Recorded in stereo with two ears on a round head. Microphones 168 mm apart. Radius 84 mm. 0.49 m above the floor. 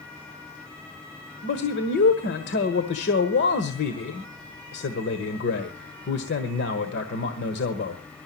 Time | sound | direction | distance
1.4 | a man speaking | 65° left (ahead or behind) | 1.4 m